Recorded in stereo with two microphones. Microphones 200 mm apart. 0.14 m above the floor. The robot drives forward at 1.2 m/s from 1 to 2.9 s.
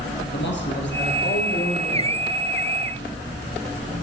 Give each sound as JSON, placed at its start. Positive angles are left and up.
{"t": 0.3, "sound": "a man speaking", "side_deg": 60, "distance_m": 2.5}